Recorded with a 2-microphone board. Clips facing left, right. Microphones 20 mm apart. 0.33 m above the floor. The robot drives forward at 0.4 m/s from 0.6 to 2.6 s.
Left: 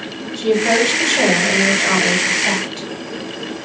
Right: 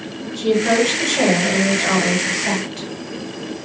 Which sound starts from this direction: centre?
A woman speaking, at 0.3 s.